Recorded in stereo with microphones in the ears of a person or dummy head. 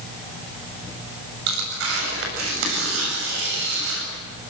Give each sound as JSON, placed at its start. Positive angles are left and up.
{"t": 1.5, "sound": "tearing paper", "side_deg": -80, "distance_m": 7.5}